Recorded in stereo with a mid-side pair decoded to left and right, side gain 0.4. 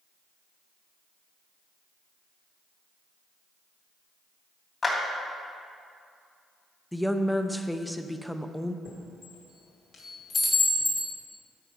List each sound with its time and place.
4.8 s a clap: 40° left, 2.5 m
6.9 s a woman speaking: 5° left, 0.7 m
8.8 s a chime: 65° left, 2 m